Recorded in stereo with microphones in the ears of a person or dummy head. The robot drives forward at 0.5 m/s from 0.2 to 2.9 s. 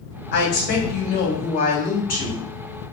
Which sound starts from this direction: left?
A woman speaking, at 0.3 s.